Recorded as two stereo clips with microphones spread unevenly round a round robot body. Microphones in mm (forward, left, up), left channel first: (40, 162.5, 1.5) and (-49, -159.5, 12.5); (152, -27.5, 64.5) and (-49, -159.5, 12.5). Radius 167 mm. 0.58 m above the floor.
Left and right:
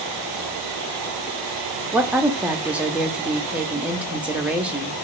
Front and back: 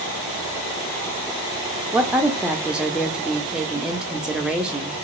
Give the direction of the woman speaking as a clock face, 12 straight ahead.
6 o'clock.